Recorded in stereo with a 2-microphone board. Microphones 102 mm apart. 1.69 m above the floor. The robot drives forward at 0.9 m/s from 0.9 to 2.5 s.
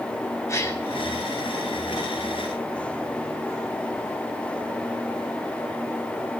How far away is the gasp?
About 2.5 m.